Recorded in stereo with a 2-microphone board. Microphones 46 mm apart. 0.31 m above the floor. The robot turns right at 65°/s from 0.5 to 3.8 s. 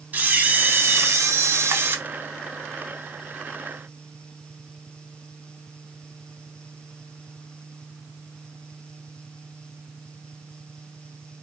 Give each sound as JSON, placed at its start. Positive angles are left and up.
{"t": 0.1, "sound": "a camera shutter", "azimuth_deg": -145, "distance_m": 0.7}